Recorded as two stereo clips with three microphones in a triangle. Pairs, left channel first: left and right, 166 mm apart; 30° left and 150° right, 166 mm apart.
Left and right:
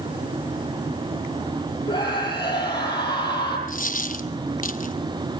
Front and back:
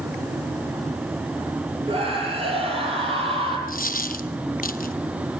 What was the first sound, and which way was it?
A scream, 155° left.